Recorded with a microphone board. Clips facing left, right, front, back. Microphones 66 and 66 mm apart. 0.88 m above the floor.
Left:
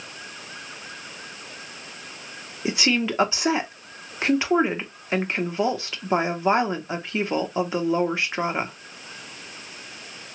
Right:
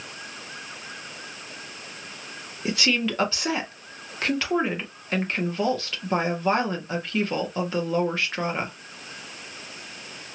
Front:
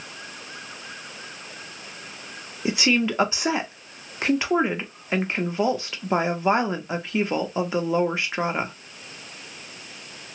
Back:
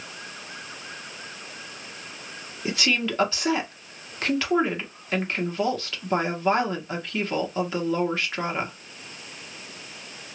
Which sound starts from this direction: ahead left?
A woman speaking, at 2.6 s.